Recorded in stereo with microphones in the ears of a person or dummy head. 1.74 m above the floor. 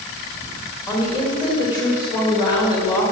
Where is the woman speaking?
20° left (ahead or behind), 3.5 m.